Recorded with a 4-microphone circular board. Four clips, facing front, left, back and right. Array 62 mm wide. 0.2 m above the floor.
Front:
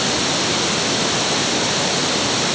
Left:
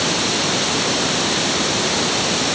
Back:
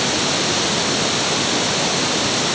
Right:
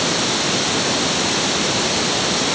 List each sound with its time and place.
Only background noise.